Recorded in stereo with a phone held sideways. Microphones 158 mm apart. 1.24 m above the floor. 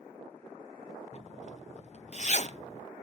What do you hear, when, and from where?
1.1 s a zipper: 45° left (ahead or behind), 0.9 m